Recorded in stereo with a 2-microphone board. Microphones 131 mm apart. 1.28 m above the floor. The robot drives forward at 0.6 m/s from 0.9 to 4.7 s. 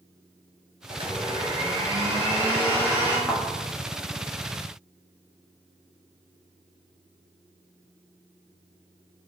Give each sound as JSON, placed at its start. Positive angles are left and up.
{"t": 0.9, "sound": "a blender", "side_deg": -45, "distance_m": 0.7}
{"t": 3.3, "sound": "a thud", "side_deg": 0, "distance_m": 0.8}